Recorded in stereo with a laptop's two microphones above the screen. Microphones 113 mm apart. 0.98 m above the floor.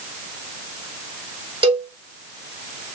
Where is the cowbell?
45° right (ahead or behind), 3.5 m.